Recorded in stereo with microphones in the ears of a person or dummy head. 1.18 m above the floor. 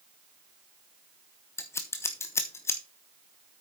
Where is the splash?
I don't hear a splash.